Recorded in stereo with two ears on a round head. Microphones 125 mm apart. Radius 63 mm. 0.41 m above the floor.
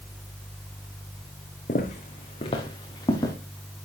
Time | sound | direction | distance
1.7 | footsteps | 60° left (ahead or behind) | 1.9 m